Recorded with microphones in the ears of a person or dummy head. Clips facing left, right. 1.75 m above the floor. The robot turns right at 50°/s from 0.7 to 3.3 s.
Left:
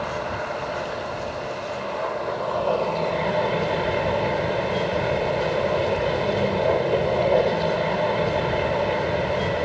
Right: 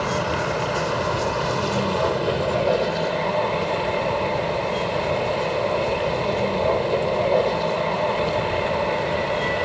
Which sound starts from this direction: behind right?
A vehicle, at 0.0 s.